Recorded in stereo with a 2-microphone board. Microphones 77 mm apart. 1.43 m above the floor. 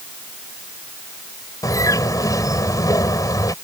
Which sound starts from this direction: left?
A bird, at 1.6 s.